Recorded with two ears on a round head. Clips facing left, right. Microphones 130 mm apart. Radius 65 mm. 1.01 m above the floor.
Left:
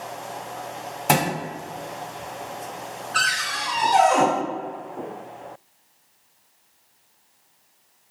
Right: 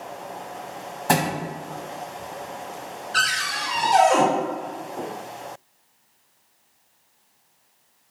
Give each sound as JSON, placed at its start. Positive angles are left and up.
{"t": 1.1, "sound": "a thud", "side_deg": 25, "distance_m": 1.4}
{"t": 3.1, "sound": "a cupboard door", "side_deg": -40, "distance_m": 1.2}